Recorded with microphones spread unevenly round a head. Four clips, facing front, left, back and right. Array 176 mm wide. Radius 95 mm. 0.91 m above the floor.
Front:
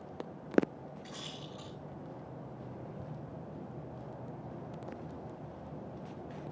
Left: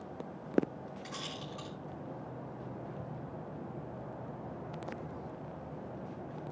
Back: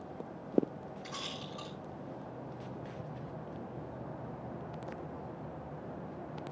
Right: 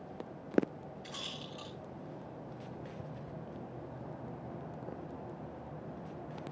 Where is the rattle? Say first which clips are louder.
Left 3 dB, back 3 dB; 135° left, 6.5 m.